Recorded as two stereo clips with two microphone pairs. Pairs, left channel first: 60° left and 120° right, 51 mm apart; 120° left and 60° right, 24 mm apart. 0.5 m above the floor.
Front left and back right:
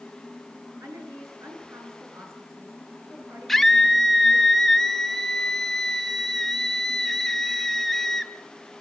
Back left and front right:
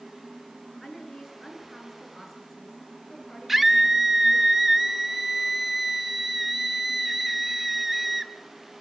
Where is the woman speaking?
145° right, 8 m.